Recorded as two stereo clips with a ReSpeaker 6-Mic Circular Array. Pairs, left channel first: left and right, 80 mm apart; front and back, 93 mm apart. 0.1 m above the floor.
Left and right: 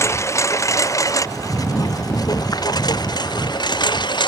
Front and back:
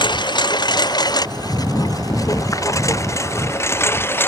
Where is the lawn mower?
35° left; by 4.3 s 65° left.